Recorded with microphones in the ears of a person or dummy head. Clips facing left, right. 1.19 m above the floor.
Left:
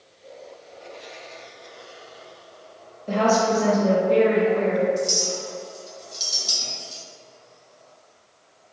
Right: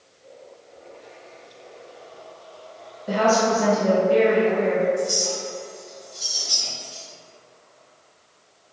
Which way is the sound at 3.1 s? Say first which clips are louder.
Even; 10° right (ahead or behind).